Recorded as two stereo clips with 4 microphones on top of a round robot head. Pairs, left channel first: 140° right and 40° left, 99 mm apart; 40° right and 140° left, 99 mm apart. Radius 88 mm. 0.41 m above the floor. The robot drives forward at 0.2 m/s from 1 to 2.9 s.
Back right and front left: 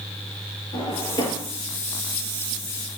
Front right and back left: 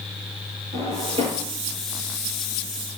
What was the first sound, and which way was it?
A drawer, 170° left.